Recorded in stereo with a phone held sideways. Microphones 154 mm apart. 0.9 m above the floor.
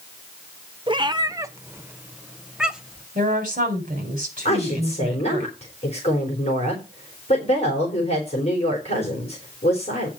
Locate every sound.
0.9 s a cat meowing: 30° right (ahead or behind), 0.5 m; by 3.1 s 5° right (ahead or behind), 1.5 m
3.1 s a woman speaking: 55° right (ahead or behind), 4 m
4.5 s a woman speaking: 40° left (ahead or behind), 3.5 m